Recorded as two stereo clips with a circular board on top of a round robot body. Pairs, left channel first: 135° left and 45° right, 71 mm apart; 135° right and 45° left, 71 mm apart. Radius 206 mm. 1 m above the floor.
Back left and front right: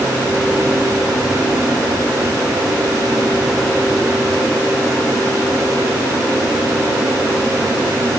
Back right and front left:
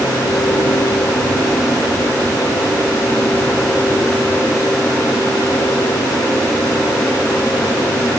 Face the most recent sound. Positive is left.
No sound to turn to.